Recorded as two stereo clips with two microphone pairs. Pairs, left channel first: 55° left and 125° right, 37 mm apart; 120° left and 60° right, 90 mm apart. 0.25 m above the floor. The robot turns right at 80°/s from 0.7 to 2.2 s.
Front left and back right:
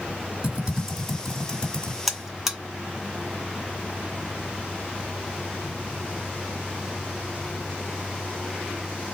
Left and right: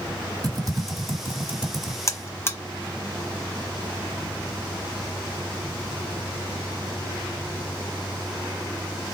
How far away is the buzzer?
About 1.0 m.